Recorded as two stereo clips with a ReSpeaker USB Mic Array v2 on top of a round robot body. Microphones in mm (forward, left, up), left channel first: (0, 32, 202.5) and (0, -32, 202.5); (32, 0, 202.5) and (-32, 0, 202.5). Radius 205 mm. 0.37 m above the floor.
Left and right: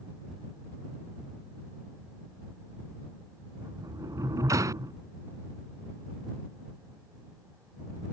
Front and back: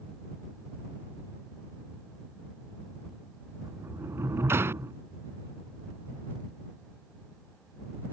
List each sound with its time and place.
3.6 s a sliding door: 130° right